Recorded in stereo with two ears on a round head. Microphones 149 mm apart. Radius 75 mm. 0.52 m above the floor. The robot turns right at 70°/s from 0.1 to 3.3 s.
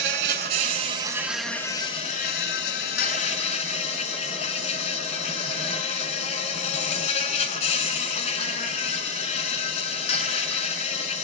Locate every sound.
0.0 s an insect: 90° right, 0.9 m; by 11.2 s 130° left, 0.9 m